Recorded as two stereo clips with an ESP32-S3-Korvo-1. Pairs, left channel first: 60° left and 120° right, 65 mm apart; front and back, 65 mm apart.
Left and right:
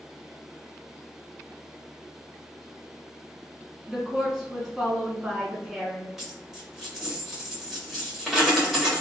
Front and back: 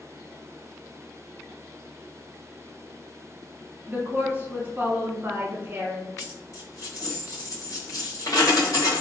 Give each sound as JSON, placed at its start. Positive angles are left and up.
{"t": 3.9, "sound": "a woman speaking", "azimuth_deg": 170, "distance_m": 1.2}
{"t": 6.2, "sound": "a dropped coin", "azimuth_deg": -35, "distance_m": 1.8}